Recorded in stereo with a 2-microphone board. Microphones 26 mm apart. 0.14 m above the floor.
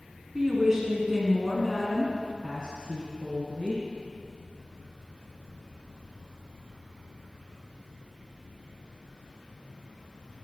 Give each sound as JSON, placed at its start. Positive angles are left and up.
{"t": 0.3, "sound": "a woman speaking", "side_deg": -30, "distance_m": 1.5}